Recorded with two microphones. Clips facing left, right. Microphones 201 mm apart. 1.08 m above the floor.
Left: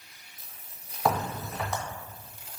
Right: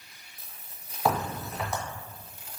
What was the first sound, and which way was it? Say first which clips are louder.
A crack: even; 5° right (ahead or behind).